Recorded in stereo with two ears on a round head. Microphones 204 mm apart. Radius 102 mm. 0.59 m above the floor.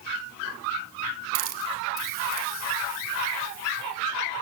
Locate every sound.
1.4 s a hiss: 45° right (ahead or behind), 1.1 m